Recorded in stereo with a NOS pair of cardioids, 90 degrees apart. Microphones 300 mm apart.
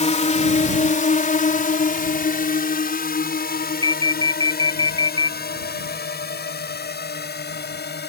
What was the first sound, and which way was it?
A drone, 20° left.